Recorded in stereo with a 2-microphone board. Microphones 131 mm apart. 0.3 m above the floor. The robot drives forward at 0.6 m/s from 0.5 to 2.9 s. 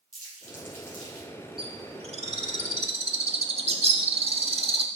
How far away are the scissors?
No scissors in this recording.